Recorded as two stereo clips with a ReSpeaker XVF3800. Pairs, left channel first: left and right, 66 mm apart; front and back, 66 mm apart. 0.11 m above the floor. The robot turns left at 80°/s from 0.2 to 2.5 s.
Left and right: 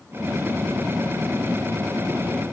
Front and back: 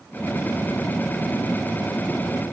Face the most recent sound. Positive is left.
No sound to turn to.